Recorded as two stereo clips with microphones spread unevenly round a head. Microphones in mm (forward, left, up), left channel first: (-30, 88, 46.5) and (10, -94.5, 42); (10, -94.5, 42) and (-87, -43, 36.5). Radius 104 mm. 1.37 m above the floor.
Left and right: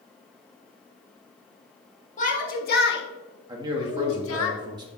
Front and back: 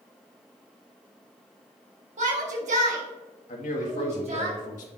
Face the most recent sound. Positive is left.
turn(degrees=-10)